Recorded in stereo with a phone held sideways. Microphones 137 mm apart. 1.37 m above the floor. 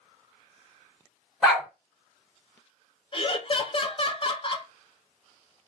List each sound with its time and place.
1.4 s a dog barking: 5° right (ahead or behind), 1.9 m
3.1 s laughter: 40° left (ahead or behind), 0.7 m